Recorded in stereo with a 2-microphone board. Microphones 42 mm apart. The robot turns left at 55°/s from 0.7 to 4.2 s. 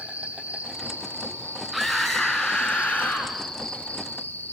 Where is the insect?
35° right, 3.5 m; by 4.5 s 130° left, 3.5 m.